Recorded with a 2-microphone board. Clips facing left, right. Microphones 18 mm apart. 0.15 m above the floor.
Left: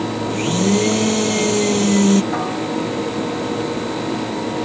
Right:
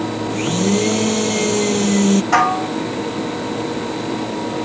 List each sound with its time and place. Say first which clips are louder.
0.3 s a blender: left 1 dB; centre (ahead or behind)
2.3 s dishes clattering: right 6 dB; 85° right